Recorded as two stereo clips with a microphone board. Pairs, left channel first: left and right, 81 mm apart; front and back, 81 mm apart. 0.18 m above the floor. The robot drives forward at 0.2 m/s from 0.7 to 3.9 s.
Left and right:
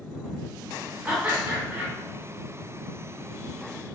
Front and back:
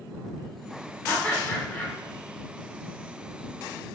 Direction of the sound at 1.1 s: 40° right.